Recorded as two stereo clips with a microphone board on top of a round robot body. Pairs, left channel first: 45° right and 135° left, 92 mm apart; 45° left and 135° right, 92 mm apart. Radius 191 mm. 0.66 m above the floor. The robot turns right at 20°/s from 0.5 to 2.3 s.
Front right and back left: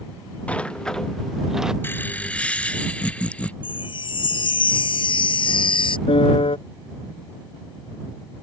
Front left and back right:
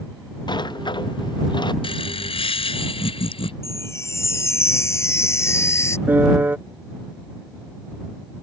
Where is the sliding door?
30° left; by 1.7 s 55° left.